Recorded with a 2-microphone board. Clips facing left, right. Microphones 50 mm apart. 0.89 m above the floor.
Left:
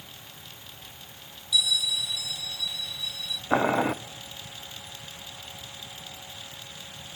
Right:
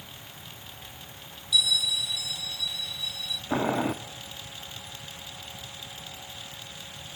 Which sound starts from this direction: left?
Boiling, at 3.5 s.